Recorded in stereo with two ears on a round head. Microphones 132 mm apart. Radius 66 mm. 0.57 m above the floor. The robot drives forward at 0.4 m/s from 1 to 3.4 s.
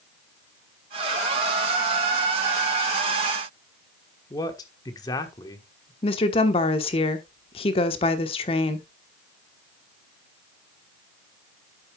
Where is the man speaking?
25° left (ahead or behind), 1.3 m.